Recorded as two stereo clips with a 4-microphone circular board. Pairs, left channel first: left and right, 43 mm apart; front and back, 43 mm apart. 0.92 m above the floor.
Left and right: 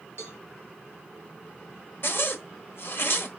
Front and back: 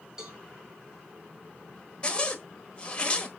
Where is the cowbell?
105° left, 3.5 m.